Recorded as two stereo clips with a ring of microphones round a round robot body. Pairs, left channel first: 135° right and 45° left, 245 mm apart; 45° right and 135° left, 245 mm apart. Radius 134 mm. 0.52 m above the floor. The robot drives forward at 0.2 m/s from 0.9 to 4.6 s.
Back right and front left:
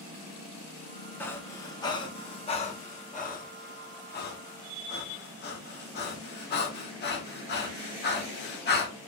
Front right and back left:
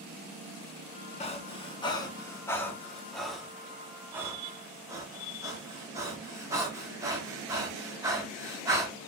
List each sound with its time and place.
1.2 s breathing: 65° right, 0.7 m; by 8.9 s 150° right, 0.9 m